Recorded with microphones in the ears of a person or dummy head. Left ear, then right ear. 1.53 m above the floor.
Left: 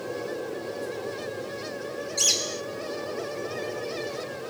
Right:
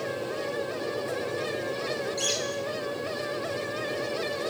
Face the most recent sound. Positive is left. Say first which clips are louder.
# left 7 dB
turn(degrees=20)  # may be behind; listen again after turning